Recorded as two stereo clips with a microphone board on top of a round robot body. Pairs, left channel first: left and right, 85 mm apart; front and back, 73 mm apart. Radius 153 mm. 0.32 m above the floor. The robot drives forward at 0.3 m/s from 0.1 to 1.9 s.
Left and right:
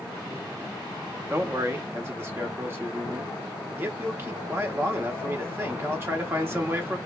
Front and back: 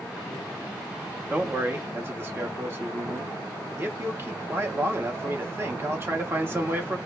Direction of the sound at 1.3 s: 130° right.